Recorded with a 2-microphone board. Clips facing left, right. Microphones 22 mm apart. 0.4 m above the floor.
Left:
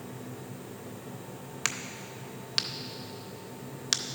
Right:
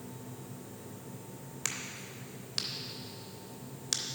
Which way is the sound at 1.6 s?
30° left (ahead or behind).